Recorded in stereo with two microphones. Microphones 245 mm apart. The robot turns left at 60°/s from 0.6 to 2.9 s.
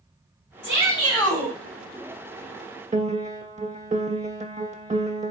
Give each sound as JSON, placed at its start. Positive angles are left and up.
{"t": 0.6, "sound": "a shout", "azimuth_deg": -40, "distance_m": 3.0}
{"t": 2.9, "sound": "a piano", "side_deg": -30, "distance_m": 0.5}